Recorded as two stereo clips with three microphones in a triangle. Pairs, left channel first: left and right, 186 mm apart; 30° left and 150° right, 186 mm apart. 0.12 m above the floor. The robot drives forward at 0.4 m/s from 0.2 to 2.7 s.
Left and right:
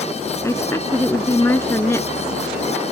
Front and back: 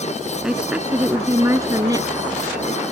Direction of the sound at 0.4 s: 130° left.